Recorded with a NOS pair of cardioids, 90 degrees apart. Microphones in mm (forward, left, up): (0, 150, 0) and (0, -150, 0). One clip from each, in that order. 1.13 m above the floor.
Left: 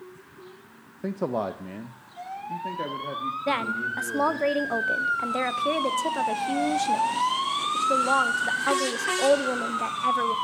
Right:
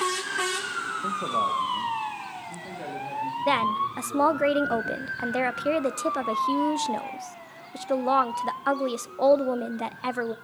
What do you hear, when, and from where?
1.0 s a man speaking: 30° left, 0.5 m; by 4.5 s 40° left, 3 m
3.5 s a woman speaking: 15° right, 0.6 m